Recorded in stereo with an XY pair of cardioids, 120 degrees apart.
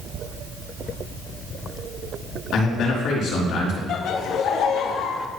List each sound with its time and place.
2.5 s a man speaking: 70° left, 3.5 m
3.9 s laughter: 60° left, 1.0 m